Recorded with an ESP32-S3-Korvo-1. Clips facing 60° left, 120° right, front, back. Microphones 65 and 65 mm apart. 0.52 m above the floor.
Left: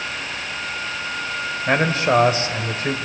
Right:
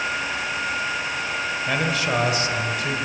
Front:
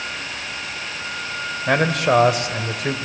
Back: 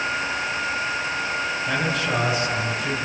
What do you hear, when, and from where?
1.7 s a man speaking: 10° left, 1.9 m